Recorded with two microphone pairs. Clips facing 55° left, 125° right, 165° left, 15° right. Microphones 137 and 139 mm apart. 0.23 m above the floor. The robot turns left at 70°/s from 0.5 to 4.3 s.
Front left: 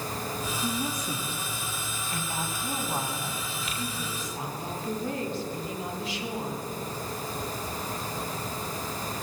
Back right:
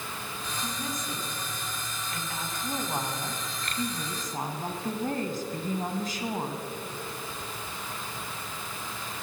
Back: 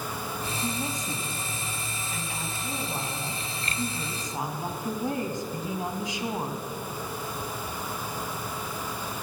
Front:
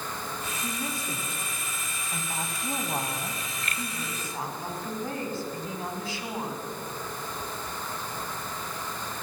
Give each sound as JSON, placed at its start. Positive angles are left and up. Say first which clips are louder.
{"t": 0.6, "sound": "a woman speaking", "louder": "front left 4 dB, back 2 dB", "azimuth_deg": 125, "distance_m": 1.9}